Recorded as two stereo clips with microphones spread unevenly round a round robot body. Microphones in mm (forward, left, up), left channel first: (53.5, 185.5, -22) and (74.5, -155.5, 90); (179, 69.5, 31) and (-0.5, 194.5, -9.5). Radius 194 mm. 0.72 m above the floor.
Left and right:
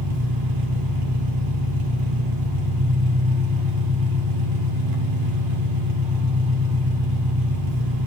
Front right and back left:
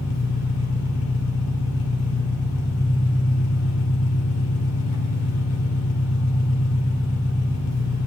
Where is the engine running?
55° right, 1.6 m.